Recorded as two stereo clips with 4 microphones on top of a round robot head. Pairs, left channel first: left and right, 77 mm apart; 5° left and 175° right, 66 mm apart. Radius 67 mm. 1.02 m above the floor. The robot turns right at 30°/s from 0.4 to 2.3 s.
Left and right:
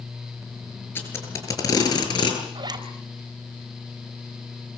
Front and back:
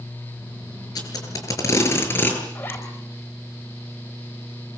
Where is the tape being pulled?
25° left, 8.5 m; by 2.4 s 70° left, 8.5 m.